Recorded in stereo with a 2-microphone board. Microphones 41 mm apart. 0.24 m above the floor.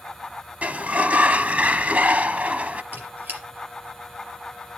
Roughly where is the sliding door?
Right.